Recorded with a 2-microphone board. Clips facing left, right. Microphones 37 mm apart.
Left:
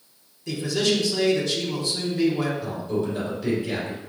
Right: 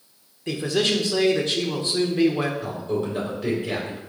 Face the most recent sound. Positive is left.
turn(degrees=-45)  # may be behind; listen again after turning